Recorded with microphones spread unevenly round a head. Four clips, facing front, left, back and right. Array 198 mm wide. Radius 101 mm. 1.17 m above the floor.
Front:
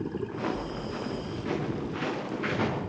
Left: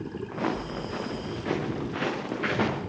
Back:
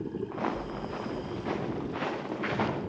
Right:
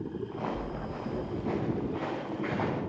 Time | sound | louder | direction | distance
0.3 | footsteps | left 8 dB, front 1 dB | 120° left | 5 m